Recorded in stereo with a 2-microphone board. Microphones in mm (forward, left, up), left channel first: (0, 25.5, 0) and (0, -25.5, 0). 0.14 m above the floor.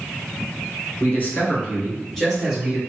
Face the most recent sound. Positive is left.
turn(degrees=0)  # may be behind; listen again after turning